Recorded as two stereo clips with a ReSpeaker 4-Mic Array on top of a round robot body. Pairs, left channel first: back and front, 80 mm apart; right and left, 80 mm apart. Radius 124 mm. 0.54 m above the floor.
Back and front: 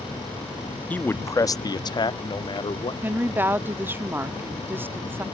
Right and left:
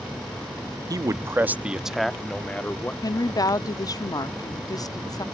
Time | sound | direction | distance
0.9 | a man speaking | 115° left | ?
3.0 | a woman speaking | 60° right | ?